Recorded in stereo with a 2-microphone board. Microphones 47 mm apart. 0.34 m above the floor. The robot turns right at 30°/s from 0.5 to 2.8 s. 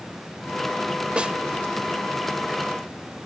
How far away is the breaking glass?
I don't hear breaking glass.